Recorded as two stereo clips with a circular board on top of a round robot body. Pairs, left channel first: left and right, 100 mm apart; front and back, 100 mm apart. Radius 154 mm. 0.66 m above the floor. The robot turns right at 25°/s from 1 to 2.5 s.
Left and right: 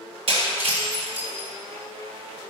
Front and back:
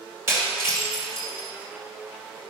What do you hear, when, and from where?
0.3 s breaking glass: 115° right, 2 m; by 1.5 s 105° right, 2 m